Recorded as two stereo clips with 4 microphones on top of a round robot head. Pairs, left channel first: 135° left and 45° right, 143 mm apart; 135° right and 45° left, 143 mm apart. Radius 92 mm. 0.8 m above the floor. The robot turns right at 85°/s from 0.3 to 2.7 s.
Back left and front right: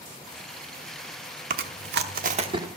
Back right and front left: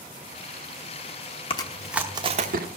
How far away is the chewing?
About 0.8 m.